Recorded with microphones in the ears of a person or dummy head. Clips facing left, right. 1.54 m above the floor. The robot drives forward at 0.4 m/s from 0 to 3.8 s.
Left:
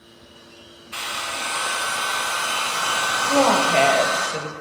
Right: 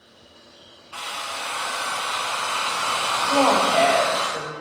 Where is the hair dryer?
25° left (ahead or behind), 0.6 m; by 4.3 s 15° left (ahead or behind), 1.1 m.